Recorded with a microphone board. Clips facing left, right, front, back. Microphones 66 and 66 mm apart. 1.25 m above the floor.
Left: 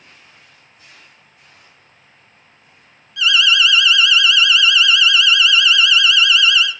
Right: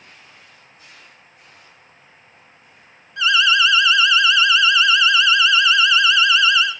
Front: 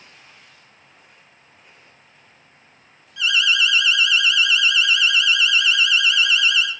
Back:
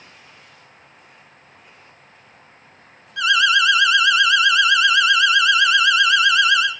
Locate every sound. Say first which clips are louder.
3.2 s an alarm: even, back 4 dB; 145° right, 1.1 m